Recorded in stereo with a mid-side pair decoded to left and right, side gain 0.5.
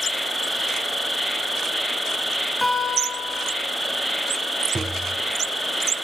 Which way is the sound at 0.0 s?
Straight ahead.